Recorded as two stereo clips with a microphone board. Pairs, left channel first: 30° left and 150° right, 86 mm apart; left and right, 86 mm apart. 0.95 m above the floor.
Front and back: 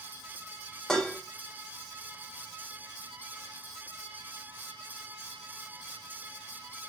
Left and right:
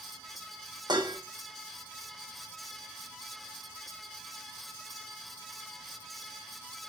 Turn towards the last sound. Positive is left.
turn(degrees=-55)